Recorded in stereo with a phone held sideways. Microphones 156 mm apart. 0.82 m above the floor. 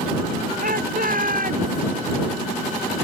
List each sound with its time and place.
0.6 s a shout: 65° right (ahead or behind)